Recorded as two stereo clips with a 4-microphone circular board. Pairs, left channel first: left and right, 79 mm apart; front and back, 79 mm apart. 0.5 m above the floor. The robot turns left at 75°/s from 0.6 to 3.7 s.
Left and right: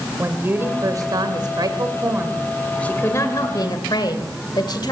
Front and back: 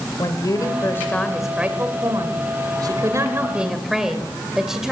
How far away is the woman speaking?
About 2 m.